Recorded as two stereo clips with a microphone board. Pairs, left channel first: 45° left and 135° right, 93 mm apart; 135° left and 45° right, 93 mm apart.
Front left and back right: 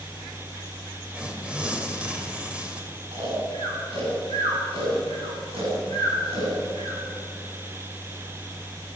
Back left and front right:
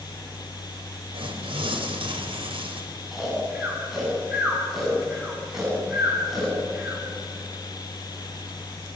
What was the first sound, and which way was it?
Tearing paper, 55° right.